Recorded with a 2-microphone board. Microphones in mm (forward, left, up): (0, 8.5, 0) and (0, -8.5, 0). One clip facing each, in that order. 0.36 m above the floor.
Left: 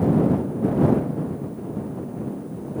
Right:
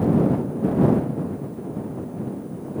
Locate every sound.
Only background noise.